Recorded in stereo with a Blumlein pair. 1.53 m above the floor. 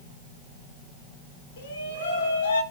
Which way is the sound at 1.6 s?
60° left.